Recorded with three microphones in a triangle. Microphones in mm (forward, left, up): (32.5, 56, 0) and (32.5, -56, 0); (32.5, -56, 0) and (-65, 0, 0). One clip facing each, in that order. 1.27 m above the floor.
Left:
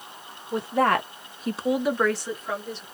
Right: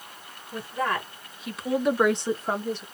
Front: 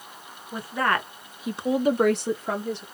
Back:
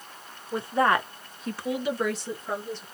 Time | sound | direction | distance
0.5 | a woman speaking | 85° left | 1.4 m